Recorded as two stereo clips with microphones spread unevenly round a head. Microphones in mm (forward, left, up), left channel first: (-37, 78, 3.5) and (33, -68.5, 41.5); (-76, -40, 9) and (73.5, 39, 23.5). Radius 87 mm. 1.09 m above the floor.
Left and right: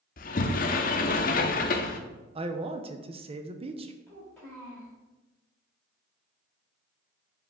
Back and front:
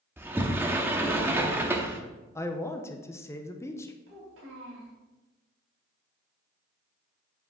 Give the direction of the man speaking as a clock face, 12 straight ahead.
4 o'clock.